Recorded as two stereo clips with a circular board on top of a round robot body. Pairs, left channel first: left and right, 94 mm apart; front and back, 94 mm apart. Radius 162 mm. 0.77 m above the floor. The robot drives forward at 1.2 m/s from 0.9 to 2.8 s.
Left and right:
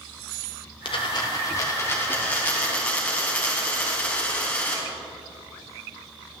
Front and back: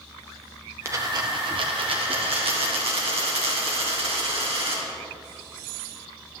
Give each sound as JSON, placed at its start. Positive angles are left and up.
{"t": 0.8, "sound": "a dropped coin", "azimuth_deg": 120, "distance_m": 0.9}